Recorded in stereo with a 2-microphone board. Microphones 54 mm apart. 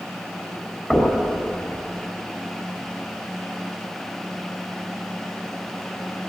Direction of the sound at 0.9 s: Centre (ahead or behind).